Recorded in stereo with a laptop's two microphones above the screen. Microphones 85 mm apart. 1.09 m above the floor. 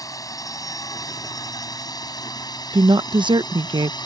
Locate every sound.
0.0 s a drone: 45° left (ahead or behind); by 4.1 s 55° left (ahead or behind)
2.7 s a woman speaking: 65° right (ahead or behind)